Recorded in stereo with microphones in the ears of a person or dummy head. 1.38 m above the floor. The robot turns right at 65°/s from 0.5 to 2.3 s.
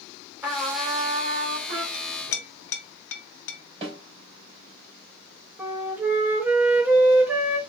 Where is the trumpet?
165° right, 2 m; by 1.8 s 80° right, 2 m.